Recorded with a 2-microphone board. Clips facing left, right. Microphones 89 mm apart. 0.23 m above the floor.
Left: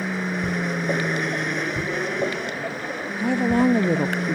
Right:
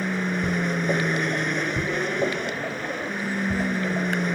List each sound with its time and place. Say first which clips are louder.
0.0 s an aircraft: even; centre (ahead or behind)
3.2 s a woman speaking: left 9 dB; 75° left (ahead or behind)